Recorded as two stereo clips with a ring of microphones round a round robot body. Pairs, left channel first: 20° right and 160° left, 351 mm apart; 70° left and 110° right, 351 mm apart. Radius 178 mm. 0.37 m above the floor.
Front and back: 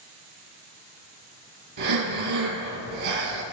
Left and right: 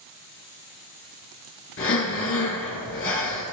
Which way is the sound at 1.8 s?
120° left.